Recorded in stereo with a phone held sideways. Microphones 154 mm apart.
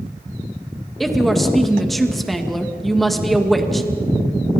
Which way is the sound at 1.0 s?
Centre (ahead or behind).